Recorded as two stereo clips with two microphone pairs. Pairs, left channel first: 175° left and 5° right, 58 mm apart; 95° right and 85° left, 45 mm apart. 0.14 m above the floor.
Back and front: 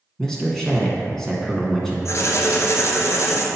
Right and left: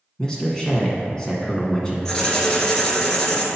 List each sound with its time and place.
0.2 s a man speaking: 125° right, 1.2 m
2.0 s writing: 170° right, 1.0 m